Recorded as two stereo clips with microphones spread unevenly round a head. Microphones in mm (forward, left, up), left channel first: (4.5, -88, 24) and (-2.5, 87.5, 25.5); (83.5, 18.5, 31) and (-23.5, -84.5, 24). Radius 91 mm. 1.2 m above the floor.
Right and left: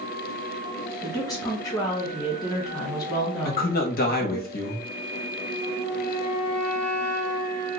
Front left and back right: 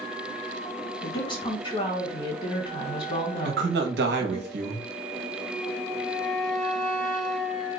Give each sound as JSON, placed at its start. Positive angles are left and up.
{"t": 1.0, "sound": "a woman speaking", "azimuth_deg": -15, "distance_m": 1.6}
{"t": 3.5, "sound": "a man speaking", "azimuth_deg": -130, "distance_m": 1.1}
{"t": 5.4, "sound": "a flute", "azimuth_deg": -40, "distance_m": 1.3}